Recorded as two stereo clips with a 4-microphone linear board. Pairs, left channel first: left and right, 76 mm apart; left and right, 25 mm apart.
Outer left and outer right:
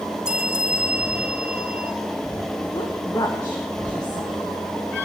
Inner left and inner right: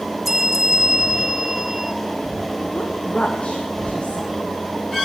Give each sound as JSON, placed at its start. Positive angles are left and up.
{"t": 0.2, "sound": "a bell", "side_deg": -10, "distance_m": 1.2}
{"t": 2.7, "sound": "a woman speaking", "side_deg": 55, "distance_m": 1.6}